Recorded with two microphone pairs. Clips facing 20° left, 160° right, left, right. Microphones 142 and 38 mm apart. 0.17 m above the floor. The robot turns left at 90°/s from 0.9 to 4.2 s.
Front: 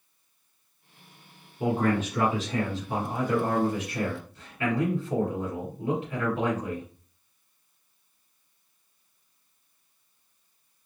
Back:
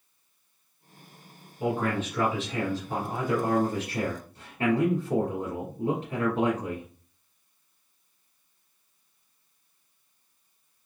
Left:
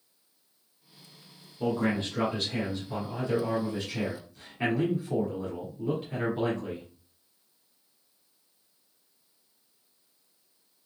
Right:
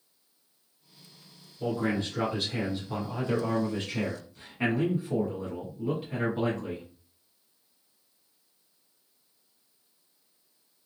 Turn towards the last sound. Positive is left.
turn(degrees=-160)